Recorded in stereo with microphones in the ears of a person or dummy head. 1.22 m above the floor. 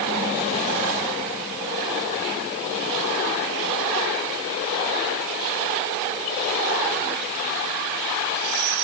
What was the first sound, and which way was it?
Only background noise.